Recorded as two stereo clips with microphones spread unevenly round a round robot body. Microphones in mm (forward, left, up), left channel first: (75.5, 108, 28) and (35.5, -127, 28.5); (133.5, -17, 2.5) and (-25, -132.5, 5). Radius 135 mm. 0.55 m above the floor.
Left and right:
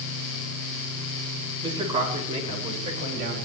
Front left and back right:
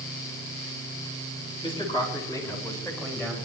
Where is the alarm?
No alarm in this recording.